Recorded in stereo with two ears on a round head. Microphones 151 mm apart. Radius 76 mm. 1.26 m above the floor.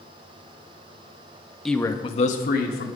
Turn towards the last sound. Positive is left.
turn(degrees=65)  # may be behind; listen again after turning